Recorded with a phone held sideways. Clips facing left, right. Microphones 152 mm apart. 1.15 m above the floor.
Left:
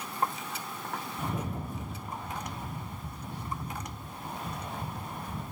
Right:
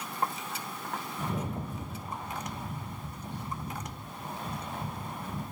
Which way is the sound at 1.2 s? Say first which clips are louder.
Right 1 dB; 10° left (ahead or behind).